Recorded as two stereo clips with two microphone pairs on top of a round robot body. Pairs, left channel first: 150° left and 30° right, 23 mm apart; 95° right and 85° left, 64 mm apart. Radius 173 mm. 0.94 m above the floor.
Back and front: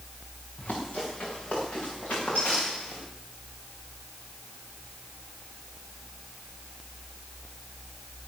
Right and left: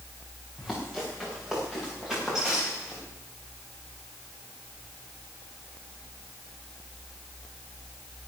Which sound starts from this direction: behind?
Running footsteps, at 0.6 s.